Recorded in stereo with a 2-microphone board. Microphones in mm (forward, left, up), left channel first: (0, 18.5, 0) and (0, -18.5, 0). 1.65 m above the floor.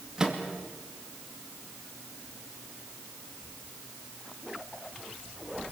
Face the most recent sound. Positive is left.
turn(degrees=-20)  # may be behind; listen again after turning